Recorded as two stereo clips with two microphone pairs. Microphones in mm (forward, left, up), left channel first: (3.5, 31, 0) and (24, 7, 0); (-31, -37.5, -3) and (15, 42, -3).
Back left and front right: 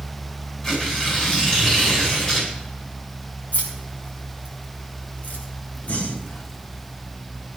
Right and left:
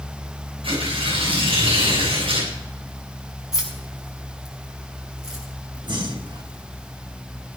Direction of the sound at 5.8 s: 90° left.